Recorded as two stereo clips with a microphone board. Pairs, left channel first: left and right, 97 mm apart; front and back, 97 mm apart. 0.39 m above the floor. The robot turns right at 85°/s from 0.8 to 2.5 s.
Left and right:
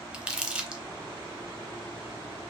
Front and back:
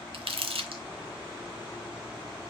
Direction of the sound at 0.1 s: 170° right.